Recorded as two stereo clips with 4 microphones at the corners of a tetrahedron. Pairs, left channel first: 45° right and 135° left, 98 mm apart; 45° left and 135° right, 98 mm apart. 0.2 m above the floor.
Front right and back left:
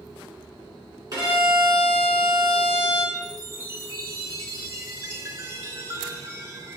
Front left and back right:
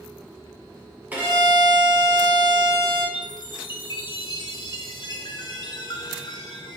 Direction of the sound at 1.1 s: 160° left.